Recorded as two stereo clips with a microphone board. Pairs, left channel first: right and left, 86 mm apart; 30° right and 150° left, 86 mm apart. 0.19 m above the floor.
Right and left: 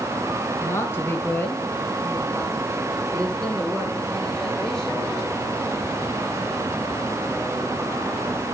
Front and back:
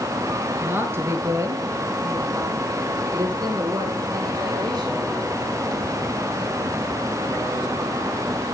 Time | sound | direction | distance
0.6 | a woman speaking | 145° right | 3 m